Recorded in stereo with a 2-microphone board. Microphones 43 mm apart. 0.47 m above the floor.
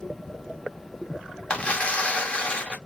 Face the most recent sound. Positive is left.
turn(degrees=35)  # may be behind; listen again after turning